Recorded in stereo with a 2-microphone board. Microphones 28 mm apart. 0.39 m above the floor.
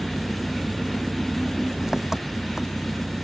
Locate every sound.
0.0 s an engine running: 20° right (ahead or behind)